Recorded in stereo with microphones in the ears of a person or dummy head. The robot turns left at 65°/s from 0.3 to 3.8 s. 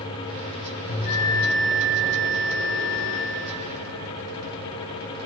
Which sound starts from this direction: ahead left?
A bell, at 0.9 s.